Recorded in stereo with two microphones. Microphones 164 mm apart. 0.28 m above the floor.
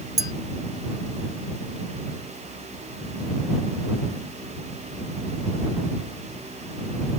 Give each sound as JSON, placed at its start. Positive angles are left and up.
{"t": 0.2, "sound": "a clink", "side_deg": -70}